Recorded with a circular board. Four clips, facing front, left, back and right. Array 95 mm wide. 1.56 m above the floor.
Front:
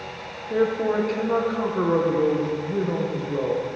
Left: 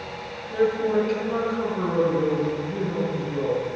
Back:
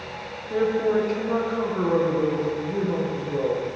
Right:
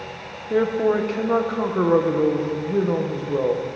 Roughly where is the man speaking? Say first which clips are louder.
Right 2 dB, even; right.